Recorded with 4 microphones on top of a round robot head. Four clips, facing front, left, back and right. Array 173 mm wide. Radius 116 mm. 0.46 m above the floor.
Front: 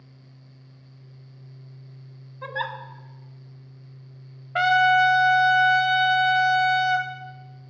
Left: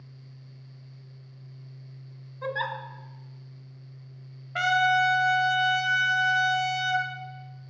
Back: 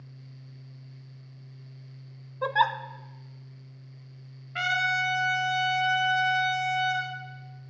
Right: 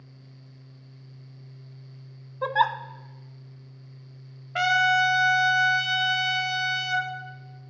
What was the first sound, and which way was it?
A giggle, 130° right.